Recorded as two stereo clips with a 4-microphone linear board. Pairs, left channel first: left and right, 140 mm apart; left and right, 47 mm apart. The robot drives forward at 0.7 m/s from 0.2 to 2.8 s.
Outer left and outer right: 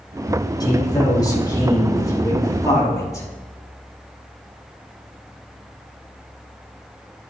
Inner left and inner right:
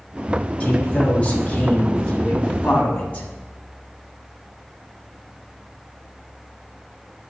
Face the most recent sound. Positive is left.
turn(degrees=25)  # may be behind; listen again after turning